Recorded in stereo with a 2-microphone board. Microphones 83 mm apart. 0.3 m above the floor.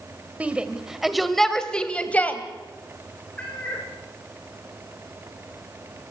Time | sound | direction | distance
0.4 | a shout | 15° right (ahead or behind) | 1.7 m
3.4 | a cat meowing | 15° left (ahead or behind) | 5 m